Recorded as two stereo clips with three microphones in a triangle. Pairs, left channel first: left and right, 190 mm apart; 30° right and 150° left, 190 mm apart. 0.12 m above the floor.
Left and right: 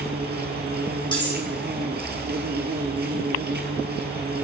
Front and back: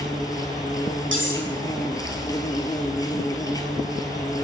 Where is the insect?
100° right, 1.4 m.